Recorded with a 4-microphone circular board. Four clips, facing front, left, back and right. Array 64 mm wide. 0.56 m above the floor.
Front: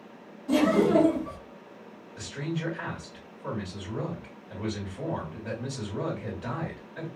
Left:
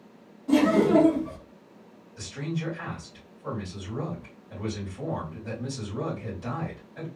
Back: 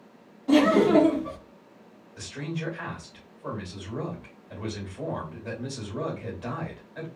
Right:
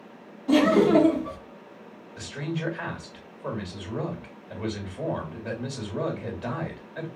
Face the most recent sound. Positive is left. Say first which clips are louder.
# right 1 dB, front 1 dB
turn(degrees=-95)